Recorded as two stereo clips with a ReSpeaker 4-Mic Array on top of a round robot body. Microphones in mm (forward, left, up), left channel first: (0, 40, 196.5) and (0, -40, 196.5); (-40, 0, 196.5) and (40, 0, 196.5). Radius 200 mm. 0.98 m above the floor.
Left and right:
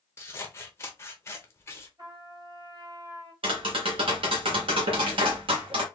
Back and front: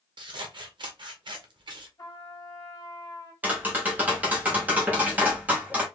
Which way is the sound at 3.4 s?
75° right.